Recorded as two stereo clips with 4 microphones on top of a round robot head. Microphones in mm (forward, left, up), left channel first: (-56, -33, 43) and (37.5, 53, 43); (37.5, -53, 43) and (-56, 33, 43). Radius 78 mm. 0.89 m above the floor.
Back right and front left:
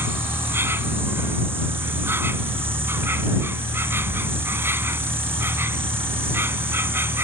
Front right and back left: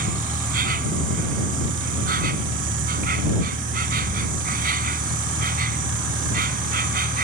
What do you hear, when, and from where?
0.0 s an insect: 115° left